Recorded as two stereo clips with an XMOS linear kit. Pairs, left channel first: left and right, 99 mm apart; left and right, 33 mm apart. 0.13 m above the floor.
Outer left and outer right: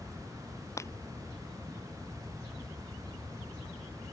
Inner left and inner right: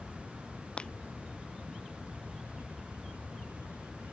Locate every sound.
0.8 s breaking glass: 30° left (ahead or behind)